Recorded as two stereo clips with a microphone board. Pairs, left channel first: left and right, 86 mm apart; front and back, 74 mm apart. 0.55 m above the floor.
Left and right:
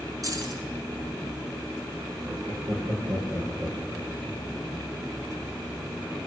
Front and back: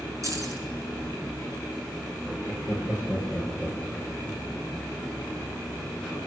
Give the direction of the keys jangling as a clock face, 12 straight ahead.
5 o'clock.